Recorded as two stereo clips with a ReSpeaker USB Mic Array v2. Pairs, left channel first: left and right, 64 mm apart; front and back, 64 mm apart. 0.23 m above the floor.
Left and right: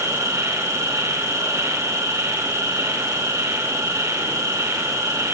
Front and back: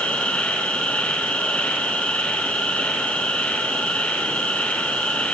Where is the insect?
65° right, 3 m.